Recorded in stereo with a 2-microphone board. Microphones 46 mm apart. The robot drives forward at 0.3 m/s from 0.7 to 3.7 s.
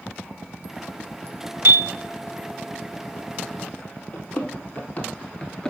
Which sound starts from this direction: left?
Running footsteps, at 4.1 s.